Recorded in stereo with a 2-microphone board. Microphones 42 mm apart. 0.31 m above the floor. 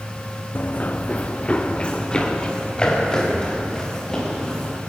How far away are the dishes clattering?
No dishes clattering in this recording.